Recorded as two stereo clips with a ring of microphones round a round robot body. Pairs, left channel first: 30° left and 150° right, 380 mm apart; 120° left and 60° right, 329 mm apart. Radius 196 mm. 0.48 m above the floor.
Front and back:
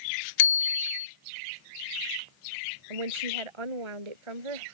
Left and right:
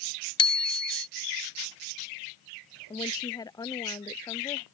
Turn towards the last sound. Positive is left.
turn(degrees=-160)